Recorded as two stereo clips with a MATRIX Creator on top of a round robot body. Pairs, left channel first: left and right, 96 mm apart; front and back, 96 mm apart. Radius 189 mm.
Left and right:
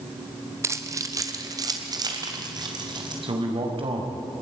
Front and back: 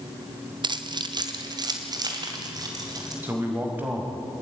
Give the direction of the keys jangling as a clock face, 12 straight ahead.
5 o'clock.